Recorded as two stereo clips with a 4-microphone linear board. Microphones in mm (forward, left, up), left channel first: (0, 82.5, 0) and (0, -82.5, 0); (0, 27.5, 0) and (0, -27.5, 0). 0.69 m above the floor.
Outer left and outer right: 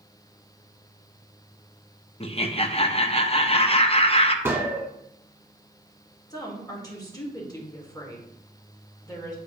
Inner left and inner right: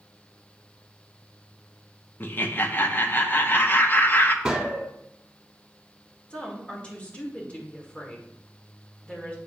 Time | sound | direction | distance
2.2 | laughter | 35° left (ahead or behind) | 0.7 m
4.5 | a gunshot | 15° right (ahead or behind) | 1.0 m
6.3 | a woman speaking | 25° left (ahead or behind) | 1.7 m